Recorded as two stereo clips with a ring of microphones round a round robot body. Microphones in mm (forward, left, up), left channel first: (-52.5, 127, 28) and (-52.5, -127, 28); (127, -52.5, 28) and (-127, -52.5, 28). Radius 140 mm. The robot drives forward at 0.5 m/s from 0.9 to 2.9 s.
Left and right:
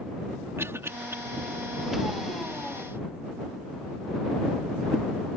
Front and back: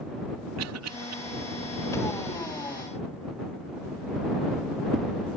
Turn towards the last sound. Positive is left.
turn(degrees=-175)